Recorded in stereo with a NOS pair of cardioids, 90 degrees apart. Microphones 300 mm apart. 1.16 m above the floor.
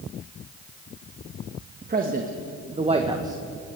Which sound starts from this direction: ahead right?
A man speaking, at 1.8 s.